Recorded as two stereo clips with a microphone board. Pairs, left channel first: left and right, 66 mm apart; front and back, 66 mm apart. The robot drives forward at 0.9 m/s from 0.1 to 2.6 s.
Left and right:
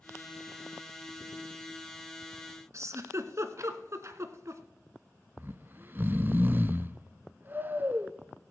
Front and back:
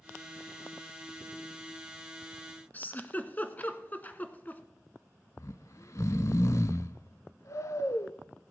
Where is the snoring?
35° right, 0.6 m.